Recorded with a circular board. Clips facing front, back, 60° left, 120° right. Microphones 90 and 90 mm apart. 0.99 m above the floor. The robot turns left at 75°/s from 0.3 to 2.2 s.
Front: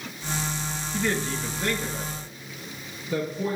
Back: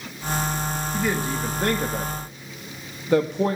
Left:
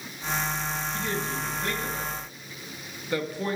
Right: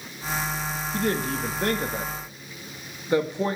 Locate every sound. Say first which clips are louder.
0.9 s a woman speaking: back 1 dB, right 9 dB; 90° right, 1.5 m; by 3.6 s 175° left, 1.5 m